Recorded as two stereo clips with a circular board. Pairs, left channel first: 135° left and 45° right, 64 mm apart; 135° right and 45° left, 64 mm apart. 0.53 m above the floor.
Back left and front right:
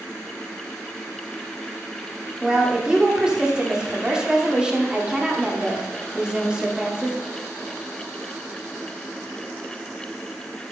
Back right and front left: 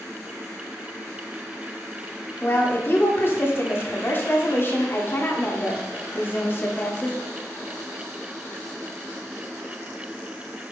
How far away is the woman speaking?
About 1.2 m.